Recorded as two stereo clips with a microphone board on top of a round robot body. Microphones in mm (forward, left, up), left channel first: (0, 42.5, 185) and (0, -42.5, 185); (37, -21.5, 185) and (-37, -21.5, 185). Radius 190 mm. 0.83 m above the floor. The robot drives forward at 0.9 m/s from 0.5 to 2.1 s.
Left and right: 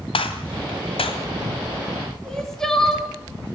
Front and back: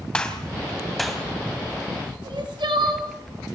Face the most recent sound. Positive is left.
turn(degrees=175)